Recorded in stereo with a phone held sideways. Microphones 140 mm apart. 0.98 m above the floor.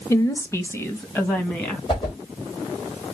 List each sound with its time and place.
0.1 s a woman speaking: 20° left (ahead or behind), 1.0 m; by 1.8 s 15° left (ahead or behind), 2 m
1.9 s a whoosh: 35° left (ahead or behind), 3.5 m